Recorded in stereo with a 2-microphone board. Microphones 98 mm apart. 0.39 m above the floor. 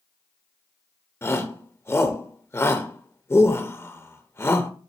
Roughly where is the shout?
Left.